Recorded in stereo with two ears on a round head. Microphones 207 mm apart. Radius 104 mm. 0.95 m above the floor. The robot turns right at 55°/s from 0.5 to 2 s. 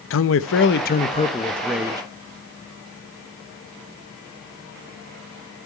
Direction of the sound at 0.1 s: 115° left.